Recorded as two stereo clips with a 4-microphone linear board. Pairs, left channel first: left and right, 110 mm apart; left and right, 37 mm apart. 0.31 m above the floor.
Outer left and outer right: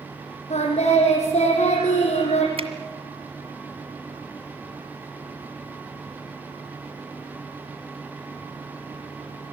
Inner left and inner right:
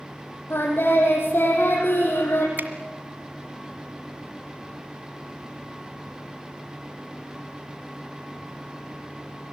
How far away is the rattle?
No rattle in this recording.